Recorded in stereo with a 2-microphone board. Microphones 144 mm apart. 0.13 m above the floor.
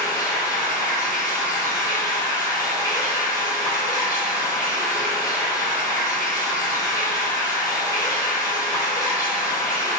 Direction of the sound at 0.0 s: 25° left (ahead or behind).